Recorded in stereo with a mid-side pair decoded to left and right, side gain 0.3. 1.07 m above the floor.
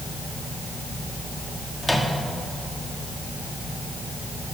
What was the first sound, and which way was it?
A microwave, 5° left.